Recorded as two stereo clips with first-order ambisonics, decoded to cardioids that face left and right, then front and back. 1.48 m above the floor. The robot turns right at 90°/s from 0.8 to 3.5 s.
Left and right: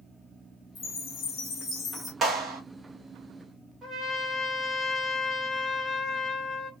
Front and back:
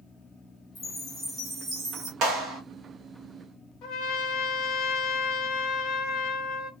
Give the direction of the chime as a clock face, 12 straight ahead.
10 o'clock.